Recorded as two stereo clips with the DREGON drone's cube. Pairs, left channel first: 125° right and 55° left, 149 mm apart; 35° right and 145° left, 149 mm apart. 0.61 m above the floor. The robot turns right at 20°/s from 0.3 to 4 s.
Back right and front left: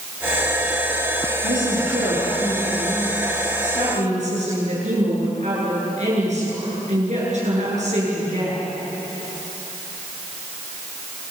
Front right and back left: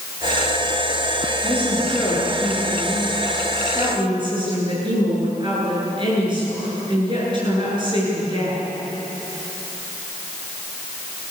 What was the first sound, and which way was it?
A woman speaking, 40° left.